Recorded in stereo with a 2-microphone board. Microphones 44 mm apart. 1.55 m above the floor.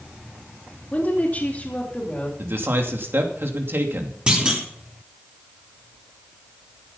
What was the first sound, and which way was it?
A woman speaking, 35° left (ahead or behind).